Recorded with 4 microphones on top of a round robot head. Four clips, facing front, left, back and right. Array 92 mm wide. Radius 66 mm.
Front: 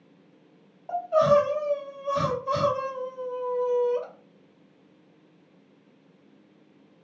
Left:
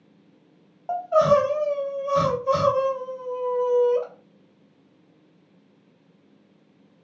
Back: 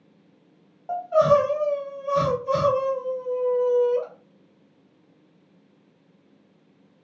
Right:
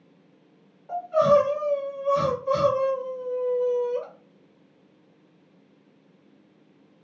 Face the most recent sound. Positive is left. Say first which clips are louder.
# left 1 dB, back 2 dB
turn(degrees=85)